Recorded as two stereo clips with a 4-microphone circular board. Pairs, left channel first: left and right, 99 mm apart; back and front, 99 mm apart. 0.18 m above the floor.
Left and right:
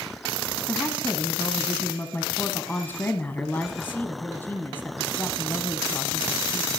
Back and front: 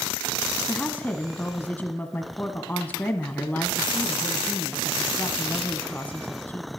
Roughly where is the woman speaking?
Behind left.